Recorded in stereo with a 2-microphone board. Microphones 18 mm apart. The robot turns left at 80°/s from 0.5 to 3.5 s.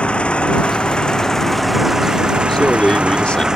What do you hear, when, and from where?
0.0 s an engine running: 95° left; by 3.6 s 145° right
2.5 s a man speaking: 145° left; by 3.5 s 70° left